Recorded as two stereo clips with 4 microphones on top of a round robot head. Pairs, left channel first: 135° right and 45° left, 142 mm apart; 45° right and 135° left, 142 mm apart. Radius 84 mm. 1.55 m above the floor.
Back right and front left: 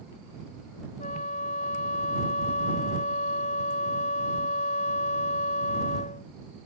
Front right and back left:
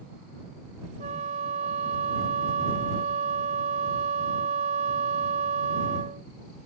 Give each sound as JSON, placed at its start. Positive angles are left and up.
{"t": 1.0, "sound": "a flute", "azimuth_deg": 180}